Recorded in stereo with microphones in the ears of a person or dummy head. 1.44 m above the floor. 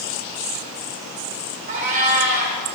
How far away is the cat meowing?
About 1.7 m.